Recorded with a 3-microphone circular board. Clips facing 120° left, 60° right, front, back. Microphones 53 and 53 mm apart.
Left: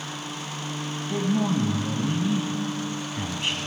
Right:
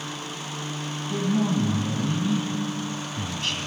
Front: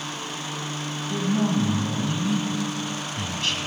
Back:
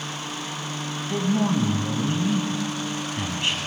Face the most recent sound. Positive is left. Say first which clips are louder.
# even, back 1 dB
turn(degrees=155)